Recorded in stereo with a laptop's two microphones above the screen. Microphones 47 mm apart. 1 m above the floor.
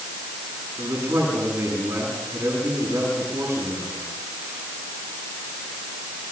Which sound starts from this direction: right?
A man speaking, at 0.8 s.